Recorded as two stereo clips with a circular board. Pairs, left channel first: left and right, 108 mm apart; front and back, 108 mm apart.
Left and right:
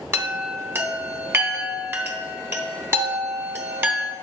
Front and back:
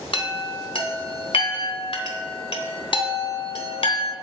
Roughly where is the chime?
Ahead right.